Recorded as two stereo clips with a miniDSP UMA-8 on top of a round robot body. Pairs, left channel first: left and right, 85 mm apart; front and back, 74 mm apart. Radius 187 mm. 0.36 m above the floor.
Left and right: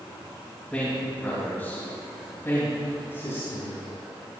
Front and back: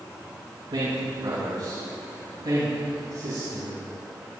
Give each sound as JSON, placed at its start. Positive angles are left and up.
{"t": 0.7, "sound": "a man speaking", "azimuth_deg": 160, "distance_m": 4.5}